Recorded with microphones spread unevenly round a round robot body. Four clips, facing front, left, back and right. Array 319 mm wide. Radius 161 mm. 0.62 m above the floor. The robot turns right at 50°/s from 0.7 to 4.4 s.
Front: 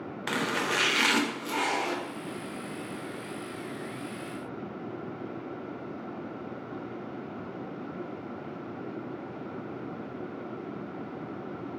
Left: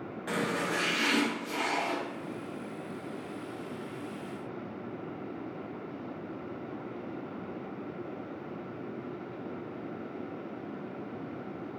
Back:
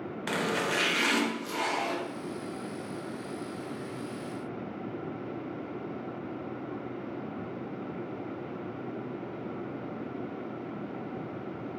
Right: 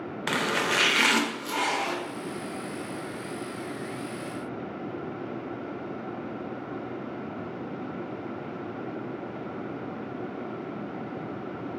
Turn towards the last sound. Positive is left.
turn(degrees=105)